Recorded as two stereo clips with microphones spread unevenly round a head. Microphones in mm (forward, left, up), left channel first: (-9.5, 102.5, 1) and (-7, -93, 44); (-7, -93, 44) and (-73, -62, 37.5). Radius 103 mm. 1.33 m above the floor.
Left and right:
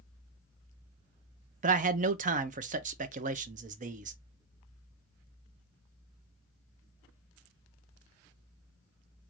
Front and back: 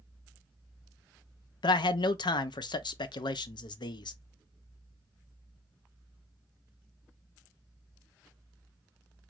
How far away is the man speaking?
About 0.5 m.